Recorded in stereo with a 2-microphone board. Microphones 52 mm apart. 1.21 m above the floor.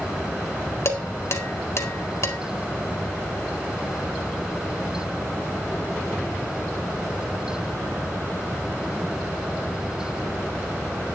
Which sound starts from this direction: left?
Dishes clattering, at 0.8 s.